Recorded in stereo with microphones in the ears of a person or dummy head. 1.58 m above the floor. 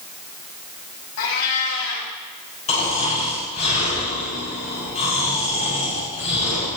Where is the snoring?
40° left (ahead or behind), 7 m.